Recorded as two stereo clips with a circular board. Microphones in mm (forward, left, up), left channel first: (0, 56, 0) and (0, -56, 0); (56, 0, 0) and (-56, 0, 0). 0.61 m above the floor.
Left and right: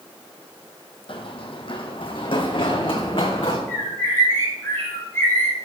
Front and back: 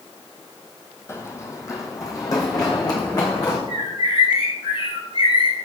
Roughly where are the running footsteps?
Ahead left.